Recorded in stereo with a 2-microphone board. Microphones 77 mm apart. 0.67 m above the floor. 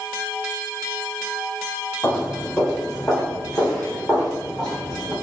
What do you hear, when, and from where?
2.0 s footsteps: 15° left (ahead or behind), 1.6 m; by 5.1 s centre (ahead or behind), 3 m